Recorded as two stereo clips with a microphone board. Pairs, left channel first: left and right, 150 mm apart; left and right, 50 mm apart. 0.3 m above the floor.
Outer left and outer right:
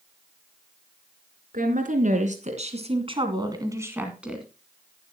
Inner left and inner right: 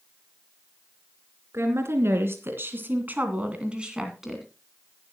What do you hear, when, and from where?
1.5 s a woman speaking: 70° right (ahead or behind), 3.5 m; by 4.5 s centre (ahead or behind), 2.5 m